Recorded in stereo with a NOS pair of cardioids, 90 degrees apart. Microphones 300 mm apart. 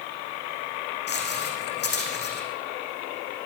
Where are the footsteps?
35° left, 4.5 m.